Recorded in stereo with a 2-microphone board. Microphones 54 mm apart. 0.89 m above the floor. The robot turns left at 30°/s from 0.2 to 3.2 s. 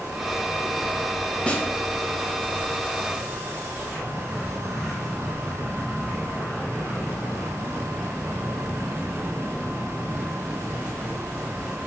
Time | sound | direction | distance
1.5 | a snare drum | 20° left (ahead or behind) | 0.5 m